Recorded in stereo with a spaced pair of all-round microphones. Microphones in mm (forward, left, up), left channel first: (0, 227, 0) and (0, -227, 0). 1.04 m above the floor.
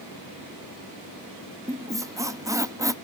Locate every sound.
1.7 s a squeak: 10° right (ahead or behind), 0.5 m